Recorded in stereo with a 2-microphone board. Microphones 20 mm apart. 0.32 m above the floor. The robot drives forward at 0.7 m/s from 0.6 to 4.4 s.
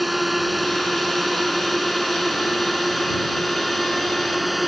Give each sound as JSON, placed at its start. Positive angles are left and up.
{"t": 0.0, "sound": "a drone", "side_deg": -5}